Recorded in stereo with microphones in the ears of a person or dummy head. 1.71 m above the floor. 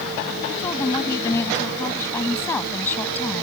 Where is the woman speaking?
20° left (ahead or behind); by 3.4 s 10° left (ahead or behind).